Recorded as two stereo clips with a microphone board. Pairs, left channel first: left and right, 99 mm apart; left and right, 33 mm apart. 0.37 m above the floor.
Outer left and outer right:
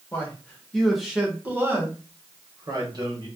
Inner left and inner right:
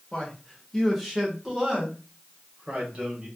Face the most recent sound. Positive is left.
turn(degrees=-45)  # may be behind; listen again after turning